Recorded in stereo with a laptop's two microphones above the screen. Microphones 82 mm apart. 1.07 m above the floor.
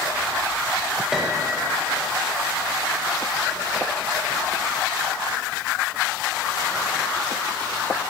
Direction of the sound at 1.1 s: 5° right (ahead or behind).